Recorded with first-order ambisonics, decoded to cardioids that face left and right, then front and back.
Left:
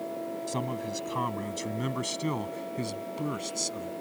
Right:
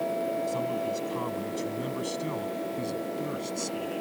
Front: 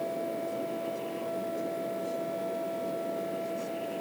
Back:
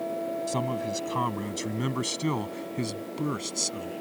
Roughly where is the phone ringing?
No phone ringing in this recording.